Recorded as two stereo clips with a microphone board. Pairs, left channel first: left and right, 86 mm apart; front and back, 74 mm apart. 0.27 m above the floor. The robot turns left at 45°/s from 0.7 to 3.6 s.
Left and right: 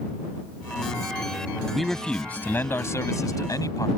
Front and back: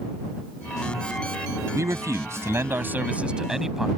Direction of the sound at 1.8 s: Straight behind.